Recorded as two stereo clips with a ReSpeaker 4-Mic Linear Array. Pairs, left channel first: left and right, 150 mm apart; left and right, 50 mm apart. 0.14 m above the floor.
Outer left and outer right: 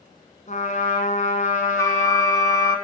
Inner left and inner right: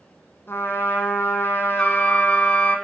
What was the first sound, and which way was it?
A trumpet, 50° left (ahead or behind).